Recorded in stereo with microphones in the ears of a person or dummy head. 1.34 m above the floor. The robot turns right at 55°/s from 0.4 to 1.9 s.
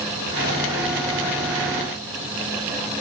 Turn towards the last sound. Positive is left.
No sound to turn to.